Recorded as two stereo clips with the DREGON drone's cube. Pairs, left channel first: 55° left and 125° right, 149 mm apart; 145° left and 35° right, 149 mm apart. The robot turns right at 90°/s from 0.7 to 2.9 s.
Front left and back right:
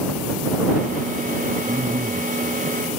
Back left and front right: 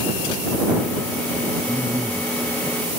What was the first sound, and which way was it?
A man speaking, 155° right.